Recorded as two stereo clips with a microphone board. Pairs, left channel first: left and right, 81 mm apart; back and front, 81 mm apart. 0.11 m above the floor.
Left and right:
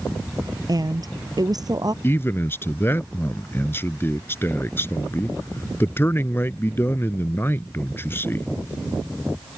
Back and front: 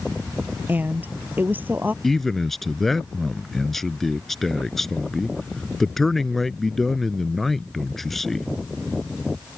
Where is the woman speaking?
65° right.